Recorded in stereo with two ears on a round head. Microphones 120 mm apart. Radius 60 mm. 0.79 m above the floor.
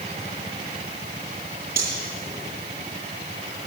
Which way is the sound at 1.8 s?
85° right.